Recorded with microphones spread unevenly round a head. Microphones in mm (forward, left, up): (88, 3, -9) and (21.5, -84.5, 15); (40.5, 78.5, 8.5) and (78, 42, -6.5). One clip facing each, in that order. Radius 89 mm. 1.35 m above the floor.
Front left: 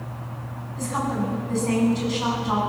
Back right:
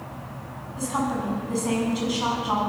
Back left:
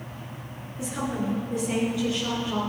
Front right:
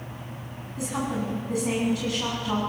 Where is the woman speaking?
50° right, 10 m.